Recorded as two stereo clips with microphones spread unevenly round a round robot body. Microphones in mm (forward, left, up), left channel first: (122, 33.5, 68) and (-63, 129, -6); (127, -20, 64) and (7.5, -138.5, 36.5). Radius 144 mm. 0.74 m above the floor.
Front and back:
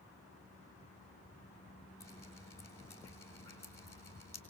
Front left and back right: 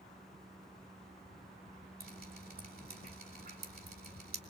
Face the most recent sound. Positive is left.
turn(degrees=-110)